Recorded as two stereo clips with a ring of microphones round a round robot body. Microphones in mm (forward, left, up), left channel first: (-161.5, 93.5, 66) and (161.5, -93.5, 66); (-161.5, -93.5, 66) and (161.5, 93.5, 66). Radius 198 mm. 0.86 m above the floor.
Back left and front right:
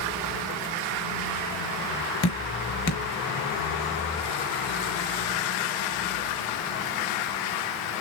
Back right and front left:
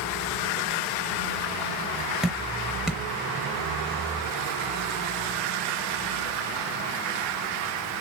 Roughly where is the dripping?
Behind left.